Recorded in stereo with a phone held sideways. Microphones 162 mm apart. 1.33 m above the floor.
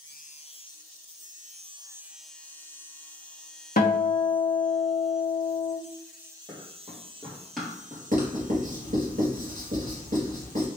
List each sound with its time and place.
3.8 s a guitar: 70° left (ahead or behind), 0.8 m
6.5 s running footsteps: 15° left (ahead or behind), 1.8 m; by 8.0 s 10° right (ahead or behind), 1.6 m
8.1 s writing: 55° right (ahead or behind), 1.7 m